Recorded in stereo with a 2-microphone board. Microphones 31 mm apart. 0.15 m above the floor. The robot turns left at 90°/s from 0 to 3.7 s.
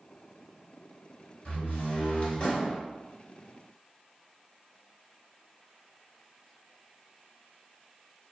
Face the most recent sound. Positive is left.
turn(degrees=-80)